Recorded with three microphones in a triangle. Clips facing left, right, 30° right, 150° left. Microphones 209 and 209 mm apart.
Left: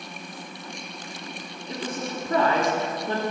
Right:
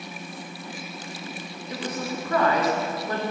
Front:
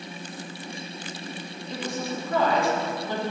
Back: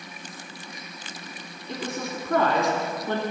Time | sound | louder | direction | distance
1.7 | a woman speaking | right 1 dB, even | 145° left | 2 m